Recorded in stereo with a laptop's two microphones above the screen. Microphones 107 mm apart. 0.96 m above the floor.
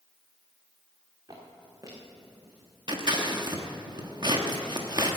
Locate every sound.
1.3 s footsteps: 40° right (ahead or behind), 4 m; by 3.8 s 10° left (ahead or behind), 4.5 m
2.9 s scissors: 40° right (ahead or behind), 1.1 m